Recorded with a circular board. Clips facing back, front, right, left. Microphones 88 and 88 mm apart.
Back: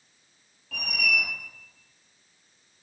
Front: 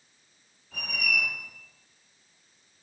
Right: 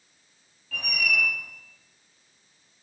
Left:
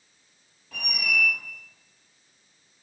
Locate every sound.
0.7 s a squeak: 165° left, 3 m